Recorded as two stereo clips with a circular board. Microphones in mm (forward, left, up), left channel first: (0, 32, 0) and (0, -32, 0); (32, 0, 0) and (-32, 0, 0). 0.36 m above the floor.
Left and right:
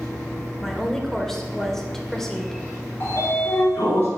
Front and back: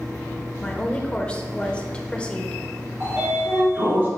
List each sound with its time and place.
0.6 s a woman speaking: 20° left, 0.9 m
3.0 s a sliding door: 135° left, 3.5 m